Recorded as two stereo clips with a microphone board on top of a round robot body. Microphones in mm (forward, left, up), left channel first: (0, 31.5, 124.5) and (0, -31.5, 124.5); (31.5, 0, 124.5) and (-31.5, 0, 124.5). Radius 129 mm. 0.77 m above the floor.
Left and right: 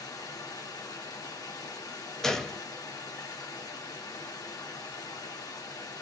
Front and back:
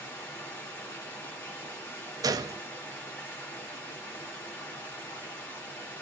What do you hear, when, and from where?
0.0 s running water: 60° left, 1.5 m
2.2 s a gunshot: 175° left, 0.8 m